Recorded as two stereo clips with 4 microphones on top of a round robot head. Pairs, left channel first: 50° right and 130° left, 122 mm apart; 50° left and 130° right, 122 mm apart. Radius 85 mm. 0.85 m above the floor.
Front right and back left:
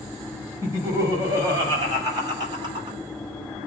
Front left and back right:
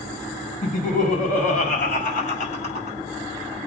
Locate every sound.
0.6 s laughter: 65° left, 5.5 m; by 3.0 s 80° left, 5 m